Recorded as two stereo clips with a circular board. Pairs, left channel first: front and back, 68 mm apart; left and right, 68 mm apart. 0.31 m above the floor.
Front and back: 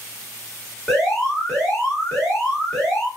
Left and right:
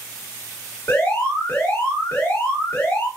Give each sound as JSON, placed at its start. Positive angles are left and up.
{"t": 0.9, "sound": "an alarm", "azimuth_deg": 75, "distance_m": 1.8}